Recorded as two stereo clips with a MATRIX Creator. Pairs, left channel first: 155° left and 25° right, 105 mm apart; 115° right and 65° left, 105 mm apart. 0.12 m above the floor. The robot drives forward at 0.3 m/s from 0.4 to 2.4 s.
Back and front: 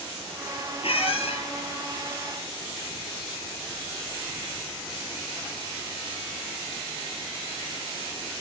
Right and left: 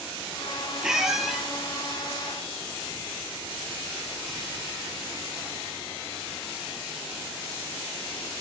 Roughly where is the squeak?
Behind left.